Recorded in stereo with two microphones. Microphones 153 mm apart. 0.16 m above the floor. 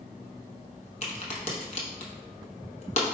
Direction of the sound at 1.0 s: 50° left (ahead or behind).